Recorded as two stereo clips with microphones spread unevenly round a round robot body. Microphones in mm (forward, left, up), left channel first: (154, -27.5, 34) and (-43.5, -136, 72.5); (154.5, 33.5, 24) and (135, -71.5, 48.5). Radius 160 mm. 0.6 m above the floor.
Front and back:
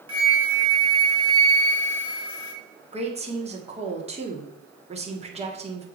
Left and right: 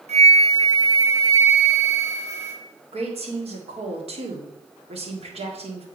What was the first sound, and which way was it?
A flute, 85° right.